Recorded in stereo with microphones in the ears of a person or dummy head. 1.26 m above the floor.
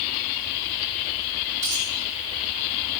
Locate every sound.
1.6 s a dropped coin: 15° right (ahead or behind), 1.7 m